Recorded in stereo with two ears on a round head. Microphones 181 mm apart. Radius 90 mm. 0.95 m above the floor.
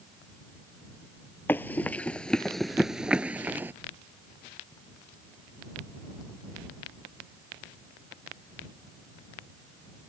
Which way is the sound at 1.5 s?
10° left (ahead or behind).